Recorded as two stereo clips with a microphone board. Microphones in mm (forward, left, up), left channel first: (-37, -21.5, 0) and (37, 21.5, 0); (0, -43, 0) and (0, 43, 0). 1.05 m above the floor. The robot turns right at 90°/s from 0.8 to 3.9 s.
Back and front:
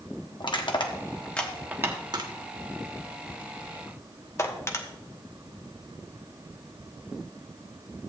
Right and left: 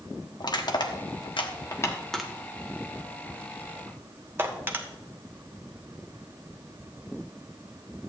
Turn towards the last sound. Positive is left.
turn(degrees=155)